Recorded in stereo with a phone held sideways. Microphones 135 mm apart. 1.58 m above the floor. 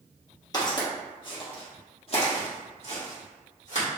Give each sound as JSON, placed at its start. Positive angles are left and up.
{"t": 0.5, "sound": "footsteps", "side_deg": 30, "distance_m": 1.9}